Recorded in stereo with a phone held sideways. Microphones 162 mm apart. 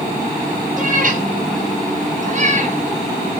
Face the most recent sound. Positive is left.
turn(degrees=-40)  # may be behind; listen again after turning